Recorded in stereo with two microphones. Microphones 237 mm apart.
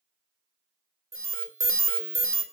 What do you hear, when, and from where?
1.1 s an alarm: 60° right (ahead or behind), 1.3 m